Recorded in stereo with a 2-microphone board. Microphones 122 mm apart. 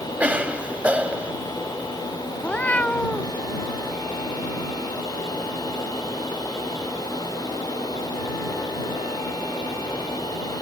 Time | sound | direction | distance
0.2 | a cough | 10° right (ahead or behind) | ?
2.4 | a cat meowing | 10° left (ahead or behind) | ?